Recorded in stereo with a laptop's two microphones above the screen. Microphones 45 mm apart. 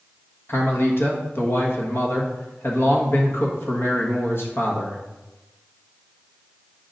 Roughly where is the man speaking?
Left.